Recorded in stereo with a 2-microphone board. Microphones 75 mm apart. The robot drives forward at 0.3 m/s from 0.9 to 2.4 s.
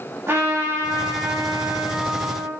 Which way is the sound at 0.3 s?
30° right (ahead or behind).